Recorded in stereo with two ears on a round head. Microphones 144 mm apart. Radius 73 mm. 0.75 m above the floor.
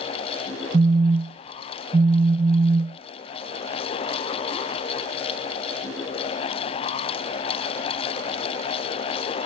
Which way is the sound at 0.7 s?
25° right (ahead or behind).